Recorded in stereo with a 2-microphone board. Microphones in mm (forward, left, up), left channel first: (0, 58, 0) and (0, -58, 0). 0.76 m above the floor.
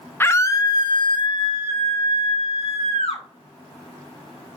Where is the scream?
20° left (ahead or behind), 0.6 m; by 3.2 s 60° left (ahead or behind), 2 m.